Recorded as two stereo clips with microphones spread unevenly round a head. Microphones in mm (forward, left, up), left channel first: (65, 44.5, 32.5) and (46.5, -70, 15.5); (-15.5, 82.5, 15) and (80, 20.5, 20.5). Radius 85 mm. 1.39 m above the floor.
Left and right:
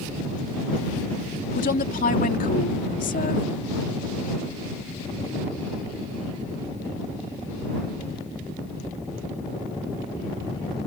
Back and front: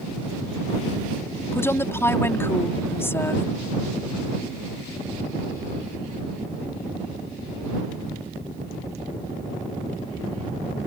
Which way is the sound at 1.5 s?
75° left.